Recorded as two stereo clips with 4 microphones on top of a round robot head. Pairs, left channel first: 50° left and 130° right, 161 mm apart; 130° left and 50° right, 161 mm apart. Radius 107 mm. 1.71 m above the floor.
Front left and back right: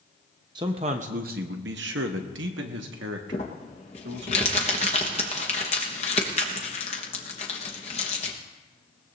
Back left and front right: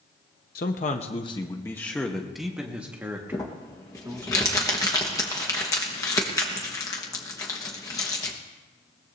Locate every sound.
0.6 s a man speaking: 165° left, 0.9 m; by 4.3 s 120° right, 2 m
3.3 s crumpling: 75° left, 1.0 m